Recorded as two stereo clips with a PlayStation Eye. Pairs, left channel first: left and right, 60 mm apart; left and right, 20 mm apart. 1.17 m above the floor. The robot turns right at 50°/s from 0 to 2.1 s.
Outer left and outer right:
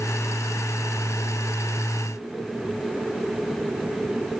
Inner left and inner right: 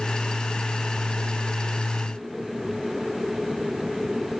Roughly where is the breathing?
I don't hear breathing.